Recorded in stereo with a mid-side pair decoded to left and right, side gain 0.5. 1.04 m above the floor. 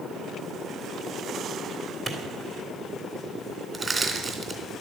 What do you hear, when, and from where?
2.1 s a clap: 40° right, 3 m
3.7 s crushing: 30° right, 3.5 m